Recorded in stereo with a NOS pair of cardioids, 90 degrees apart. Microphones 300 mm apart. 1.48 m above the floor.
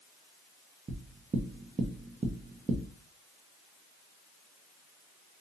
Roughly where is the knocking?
Ahead.